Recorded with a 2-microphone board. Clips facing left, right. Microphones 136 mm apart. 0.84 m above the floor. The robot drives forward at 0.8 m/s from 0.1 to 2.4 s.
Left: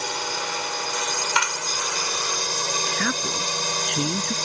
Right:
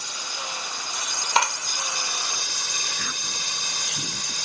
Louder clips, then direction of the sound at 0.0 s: Left 8 dB; 70° left (ahead or behind).